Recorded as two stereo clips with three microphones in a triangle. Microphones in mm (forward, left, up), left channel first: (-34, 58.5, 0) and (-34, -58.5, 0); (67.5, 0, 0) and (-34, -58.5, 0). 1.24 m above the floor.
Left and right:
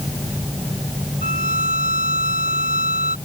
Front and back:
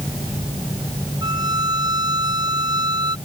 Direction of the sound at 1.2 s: 95° right.